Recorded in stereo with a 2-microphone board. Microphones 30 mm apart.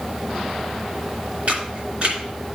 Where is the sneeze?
I don't hear a sneeze.